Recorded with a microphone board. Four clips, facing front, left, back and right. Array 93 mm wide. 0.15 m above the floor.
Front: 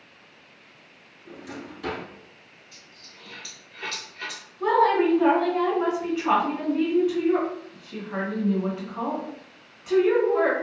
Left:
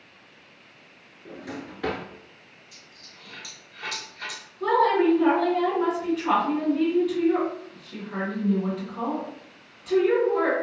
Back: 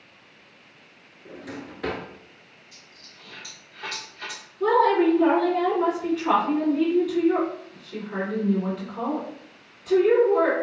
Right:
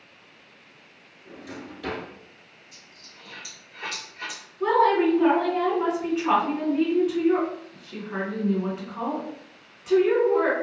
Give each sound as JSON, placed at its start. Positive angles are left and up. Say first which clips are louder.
{"t": 1.2, "sound": "a drawer", "louder": "left 2 dB, back 1 dB", "azimuth_deg": 130, "distance_m": 0.6}
{"t": 2.7, "sound": "a dropped coin", "louder": "even, front 1 dB", "azimuth_deg": -40, "distance_m": 1.2}
{"t": 4.6, "sound": "a woman speaking", "louder": "right 1 dB, back 1 dB", "azimuth_deg": -45, "distance_m": 1.9}